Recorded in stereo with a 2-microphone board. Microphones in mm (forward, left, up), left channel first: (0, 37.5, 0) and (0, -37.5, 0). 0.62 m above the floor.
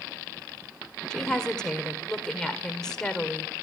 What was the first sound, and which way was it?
A woman speaking, 10° left (ahead or behind).